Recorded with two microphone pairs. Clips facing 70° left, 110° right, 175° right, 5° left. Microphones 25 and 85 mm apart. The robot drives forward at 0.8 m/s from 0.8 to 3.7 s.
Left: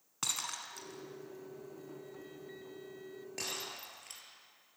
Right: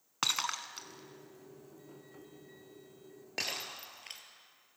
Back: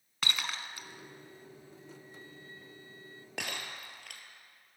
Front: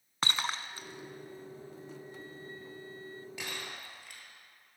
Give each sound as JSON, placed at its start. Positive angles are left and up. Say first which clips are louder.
{"t": 0.2, "sound": "breaking glass", "louder": "right 6 dB, front 3 dB", "azimuth_deg": -55, "distance_m": 0.8}